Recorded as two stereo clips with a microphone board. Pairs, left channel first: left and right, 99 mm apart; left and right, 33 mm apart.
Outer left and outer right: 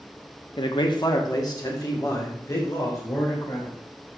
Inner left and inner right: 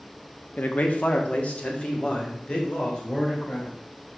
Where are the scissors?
No scissors in this recording.